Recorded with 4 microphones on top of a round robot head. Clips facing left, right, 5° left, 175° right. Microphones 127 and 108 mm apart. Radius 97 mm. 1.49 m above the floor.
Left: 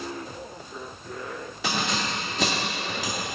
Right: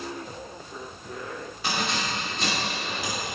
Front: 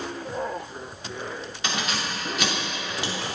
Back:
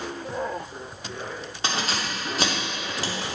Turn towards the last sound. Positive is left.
turn(degrees=130)